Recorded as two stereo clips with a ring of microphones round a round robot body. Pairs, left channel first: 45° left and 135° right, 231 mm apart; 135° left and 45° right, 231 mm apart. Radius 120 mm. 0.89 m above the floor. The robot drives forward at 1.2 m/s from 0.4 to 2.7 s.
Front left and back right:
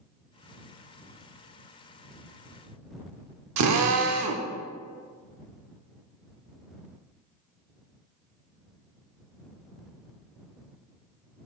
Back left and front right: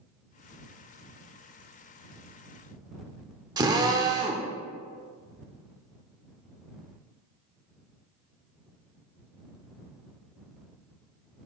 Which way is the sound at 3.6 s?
120° right.